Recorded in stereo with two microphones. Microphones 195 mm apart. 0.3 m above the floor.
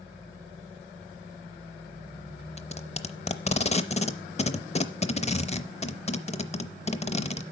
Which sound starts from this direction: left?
Tape being pulled, at 2.6 s.